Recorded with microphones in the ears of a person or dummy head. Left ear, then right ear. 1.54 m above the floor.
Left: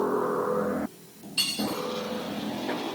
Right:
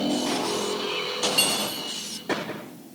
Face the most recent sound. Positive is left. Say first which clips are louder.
# left 1 dB
turn(degrees=0)  # may be behind; listen again after turning